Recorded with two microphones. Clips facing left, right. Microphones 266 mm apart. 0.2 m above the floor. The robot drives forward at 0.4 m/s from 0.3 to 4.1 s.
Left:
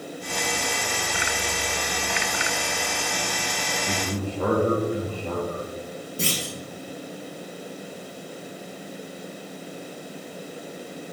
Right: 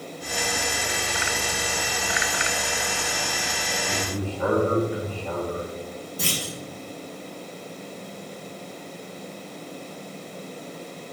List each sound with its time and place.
3.9 s a man speaking: 55° left (ahead or behind), 3 m
6.2 s a clunk: 30° left (ahead or behind), 4 m